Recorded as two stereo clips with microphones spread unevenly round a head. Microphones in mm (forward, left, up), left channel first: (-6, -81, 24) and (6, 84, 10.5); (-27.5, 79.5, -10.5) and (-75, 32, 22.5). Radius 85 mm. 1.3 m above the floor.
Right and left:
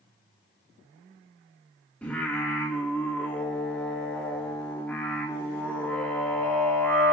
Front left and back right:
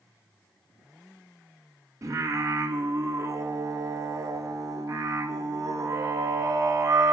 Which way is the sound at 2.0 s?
175° right.